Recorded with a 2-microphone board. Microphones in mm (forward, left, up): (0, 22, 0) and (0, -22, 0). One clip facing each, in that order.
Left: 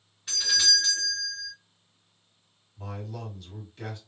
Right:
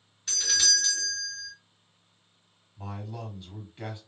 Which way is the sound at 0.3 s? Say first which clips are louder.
Left 2 dB; 10° left (ahead or behind).